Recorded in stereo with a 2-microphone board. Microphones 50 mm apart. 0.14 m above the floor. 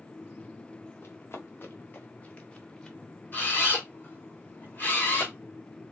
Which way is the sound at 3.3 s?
40° left (ahead or behind).